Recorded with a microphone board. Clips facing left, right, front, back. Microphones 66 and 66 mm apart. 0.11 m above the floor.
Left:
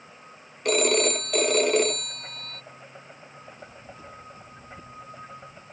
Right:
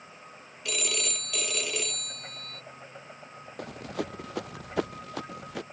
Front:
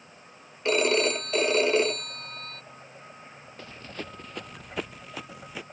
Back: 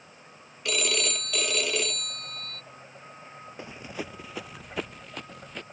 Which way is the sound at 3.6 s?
105° right.